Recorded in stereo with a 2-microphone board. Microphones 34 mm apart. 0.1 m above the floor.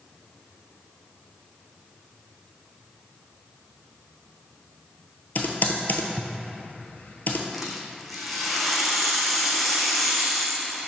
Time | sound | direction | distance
5.3 | typing on a keyboard | 60° left (ahead or behind) | 0.9 m
7.5 | a rattle | 5° left (ahead or behind) | 1.0 m